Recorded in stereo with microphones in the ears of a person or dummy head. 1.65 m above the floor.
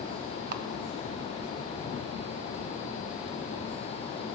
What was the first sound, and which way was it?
A camera shutter, 50° right (ahead or behind).